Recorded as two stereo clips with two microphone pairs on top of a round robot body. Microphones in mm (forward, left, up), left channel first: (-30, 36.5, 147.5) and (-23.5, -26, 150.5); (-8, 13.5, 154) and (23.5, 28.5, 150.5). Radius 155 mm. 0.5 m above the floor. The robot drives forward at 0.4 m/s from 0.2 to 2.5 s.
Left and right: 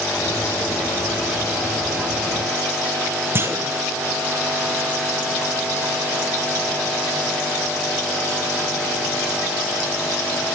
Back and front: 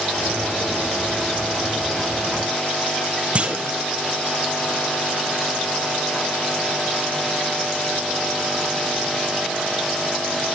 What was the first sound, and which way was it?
A clunk, 30° right.